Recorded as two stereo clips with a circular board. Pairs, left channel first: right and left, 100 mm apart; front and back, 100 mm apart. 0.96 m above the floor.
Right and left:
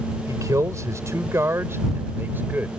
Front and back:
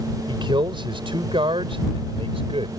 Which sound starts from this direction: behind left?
A man speaking, at 0.3 s.